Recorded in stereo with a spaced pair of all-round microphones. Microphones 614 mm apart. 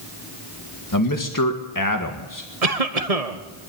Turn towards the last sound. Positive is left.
turn(degrees=-75)  # may be behind; listen again after turning